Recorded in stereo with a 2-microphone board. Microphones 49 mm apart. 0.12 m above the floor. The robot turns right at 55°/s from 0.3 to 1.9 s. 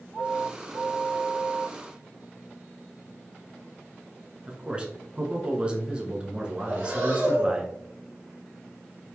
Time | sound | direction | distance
4.5 | a man speaking | 20° right (ahead or behind) | 1.1 m
6.6 | breathing | 35° right (ahead or behind) | 2.5 m